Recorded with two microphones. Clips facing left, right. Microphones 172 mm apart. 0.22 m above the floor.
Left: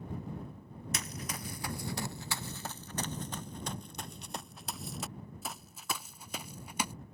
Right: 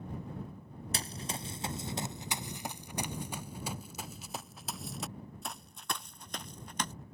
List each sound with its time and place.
0.9 s running footsteps: 30° right (ahead or behind); by 6.9 s 10° left (ahead or behind)